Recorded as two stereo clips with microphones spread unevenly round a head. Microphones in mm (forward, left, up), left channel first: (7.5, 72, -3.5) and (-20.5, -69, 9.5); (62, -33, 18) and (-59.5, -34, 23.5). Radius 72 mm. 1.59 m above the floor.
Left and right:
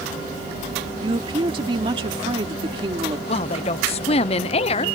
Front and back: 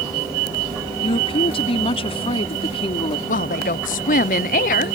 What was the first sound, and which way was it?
A woman speaking, 40° right.